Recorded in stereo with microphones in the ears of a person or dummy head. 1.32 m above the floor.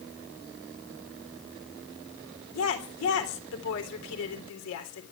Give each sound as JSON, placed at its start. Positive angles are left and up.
{"t": 2.5, "sound": "a woman speaking", "side_deg": 75, "distance_m": 3.5}